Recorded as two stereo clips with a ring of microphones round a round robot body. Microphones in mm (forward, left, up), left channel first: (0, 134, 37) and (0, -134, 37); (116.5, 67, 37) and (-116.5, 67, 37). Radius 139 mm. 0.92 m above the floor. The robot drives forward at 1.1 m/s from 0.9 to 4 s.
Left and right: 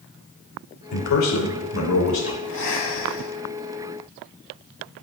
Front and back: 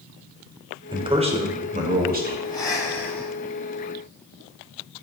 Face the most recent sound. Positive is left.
turn(degrees=100)